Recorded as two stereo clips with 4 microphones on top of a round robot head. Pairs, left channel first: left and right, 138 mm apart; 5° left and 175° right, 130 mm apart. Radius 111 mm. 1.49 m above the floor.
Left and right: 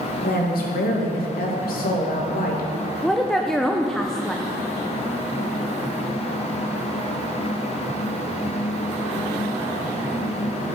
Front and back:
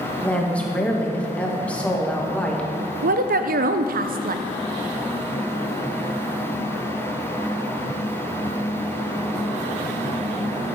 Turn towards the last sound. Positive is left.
turn(degrees=180)